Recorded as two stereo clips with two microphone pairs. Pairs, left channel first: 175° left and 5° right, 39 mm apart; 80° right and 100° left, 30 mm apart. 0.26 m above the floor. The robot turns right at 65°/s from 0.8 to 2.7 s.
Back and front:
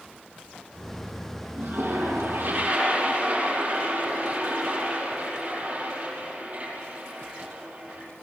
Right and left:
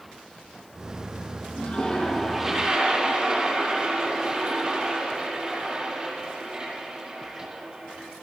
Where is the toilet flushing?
30° right, 6.5 m; by 8.0 s 40° left, 6.5 m.